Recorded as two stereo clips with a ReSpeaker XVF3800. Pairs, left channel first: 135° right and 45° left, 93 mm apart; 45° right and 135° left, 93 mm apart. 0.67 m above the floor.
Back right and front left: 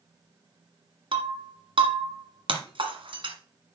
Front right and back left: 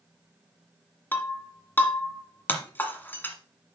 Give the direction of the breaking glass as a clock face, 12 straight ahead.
11 o'clock.